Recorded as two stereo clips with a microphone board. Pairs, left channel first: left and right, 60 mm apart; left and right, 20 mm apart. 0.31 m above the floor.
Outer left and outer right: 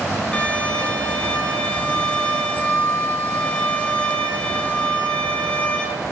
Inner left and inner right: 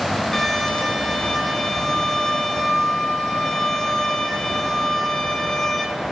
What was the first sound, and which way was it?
A violin, 20° left (ahead or behind).